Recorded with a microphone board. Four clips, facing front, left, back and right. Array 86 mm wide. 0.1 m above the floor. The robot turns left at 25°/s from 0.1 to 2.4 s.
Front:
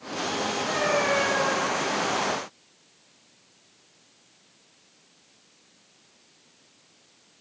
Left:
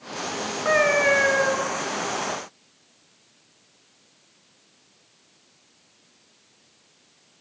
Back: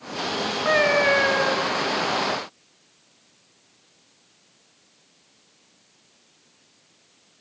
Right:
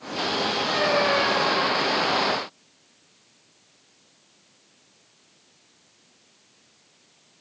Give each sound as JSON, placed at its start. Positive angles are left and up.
{"t": 0.7, "sound": "a cat meowing", "azimuth_deg": 135, "distance_m": 5.5}